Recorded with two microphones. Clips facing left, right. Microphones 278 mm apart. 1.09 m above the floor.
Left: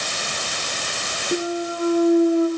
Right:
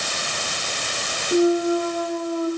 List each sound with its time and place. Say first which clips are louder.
1.3 s a clunk: right 7 dB; 15° left (ahead or behind), 5.5 m